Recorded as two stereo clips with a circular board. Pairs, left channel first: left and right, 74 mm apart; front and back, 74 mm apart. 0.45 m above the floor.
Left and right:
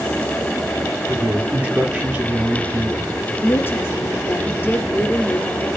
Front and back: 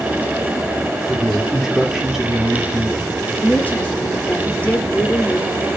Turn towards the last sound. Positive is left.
turn(degrees=55)